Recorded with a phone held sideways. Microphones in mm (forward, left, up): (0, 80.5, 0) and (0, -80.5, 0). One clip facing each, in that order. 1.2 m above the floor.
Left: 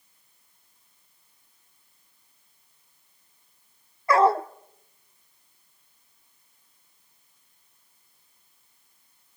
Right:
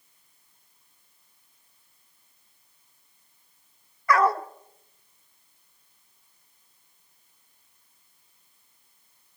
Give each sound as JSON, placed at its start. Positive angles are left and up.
{"t": 4.1, "sound": "a dog barking", "side_deg": 25, "distance_m": 0.9}